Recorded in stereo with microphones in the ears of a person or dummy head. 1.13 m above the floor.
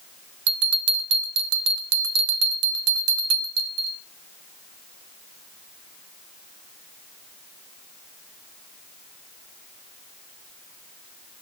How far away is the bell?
About 0.8 m.